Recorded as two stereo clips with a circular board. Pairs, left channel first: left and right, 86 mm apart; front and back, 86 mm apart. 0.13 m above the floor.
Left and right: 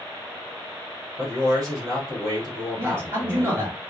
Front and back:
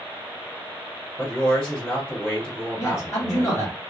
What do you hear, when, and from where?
1.2 s a man speaking: 70° right, 2 m
2.8 s a man speaking: 40° right, 2.5 m